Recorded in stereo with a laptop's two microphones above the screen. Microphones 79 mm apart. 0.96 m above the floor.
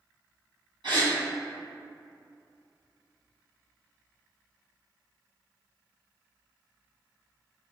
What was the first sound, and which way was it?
A gasp, 70° right (ahead or behind).